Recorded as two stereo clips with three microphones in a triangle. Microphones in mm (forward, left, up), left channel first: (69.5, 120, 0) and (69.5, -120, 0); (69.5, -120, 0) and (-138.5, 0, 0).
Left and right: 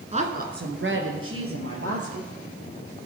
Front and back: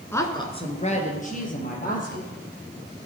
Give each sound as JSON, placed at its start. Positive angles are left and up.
{"t": 0.1, "sound": "a woman speaking", "azimuth_deg": -100, "distance_m": 1.1}